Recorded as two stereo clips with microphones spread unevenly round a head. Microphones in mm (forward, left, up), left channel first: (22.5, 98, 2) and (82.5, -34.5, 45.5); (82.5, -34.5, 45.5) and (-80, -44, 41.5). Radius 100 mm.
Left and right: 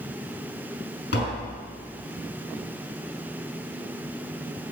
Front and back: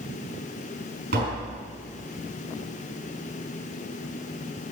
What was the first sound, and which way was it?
Tapping, 140° left.